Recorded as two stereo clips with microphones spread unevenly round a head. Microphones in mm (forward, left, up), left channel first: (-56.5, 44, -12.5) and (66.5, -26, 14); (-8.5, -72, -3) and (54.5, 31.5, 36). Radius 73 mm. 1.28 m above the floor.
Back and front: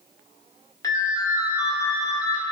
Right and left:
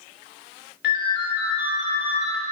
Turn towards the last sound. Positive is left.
turn(degrees=-140)